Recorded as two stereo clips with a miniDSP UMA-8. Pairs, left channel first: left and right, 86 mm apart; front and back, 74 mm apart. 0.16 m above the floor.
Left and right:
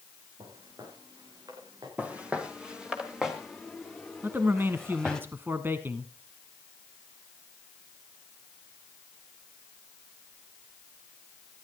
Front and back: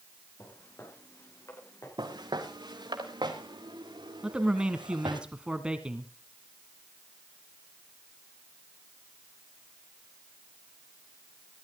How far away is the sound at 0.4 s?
About 8.5 m.